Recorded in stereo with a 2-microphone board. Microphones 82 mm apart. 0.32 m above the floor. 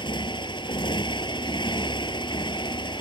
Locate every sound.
0.0 s a motorcycle: 75° left (ahead or behind)